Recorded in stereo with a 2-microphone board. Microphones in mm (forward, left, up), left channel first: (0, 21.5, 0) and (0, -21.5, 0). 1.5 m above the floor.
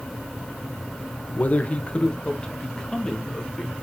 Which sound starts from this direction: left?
A man speaking, at 1.4 s.